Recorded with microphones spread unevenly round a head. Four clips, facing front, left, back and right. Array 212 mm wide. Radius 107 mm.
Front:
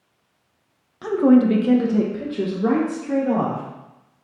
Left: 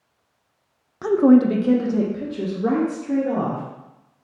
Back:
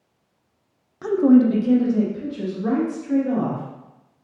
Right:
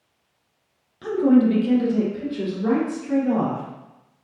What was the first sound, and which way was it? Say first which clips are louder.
A woman speaking: left 3 dB, even; 85° left.